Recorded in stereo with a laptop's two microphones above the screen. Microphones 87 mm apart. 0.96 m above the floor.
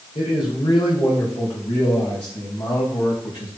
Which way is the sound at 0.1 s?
80° left.